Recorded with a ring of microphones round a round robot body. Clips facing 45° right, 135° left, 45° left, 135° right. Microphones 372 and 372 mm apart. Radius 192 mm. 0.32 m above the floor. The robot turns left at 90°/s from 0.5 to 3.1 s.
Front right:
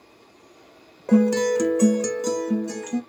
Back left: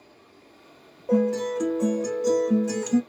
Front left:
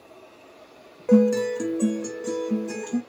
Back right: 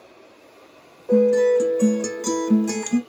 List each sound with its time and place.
1.1 s a guitar: straight ahead, 0.6 m; by 3.0 s 170° right, 0.6 m